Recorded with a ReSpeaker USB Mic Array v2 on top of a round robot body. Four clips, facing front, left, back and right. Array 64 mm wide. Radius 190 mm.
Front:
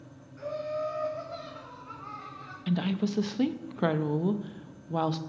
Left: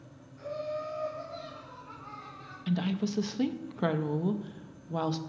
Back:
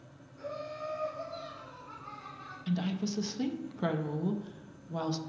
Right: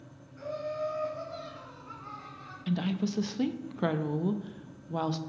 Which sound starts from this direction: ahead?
A woman speaking, at 2.7 s.